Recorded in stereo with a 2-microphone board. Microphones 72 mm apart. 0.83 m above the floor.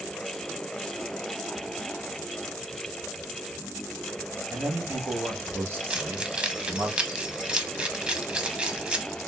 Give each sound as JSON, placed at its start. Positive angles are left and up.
{"t": 4.5, "sound": "a man speaking", "side_deg": -30, "distance_m": 1.1}
{"t": 5.9, "sound": "keys jangling", "side_deg": -15, "distance_m": 0.6}